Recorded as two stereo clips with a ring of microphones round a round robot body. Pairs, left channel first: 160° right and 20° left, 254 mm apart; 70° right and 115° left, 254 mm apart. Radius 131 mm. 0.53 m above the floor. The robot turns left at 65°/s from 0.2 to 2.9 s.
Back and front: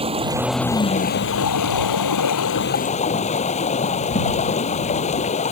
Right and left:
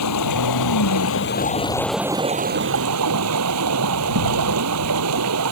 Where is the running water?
45° right; by 5.5 s 140° left.